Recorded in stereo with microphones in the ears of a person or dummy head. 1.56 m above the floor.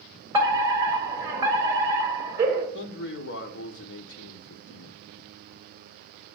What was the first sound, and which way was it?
A fire alarm, 20° right (ahead or behind).